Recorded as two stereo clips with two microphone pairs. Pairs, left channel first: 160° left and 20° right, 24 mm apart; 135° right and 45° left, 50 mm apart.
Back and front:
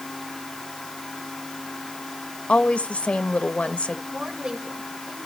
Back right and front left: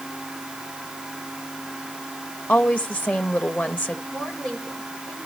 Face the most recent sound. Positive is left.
turn(degrees=-60)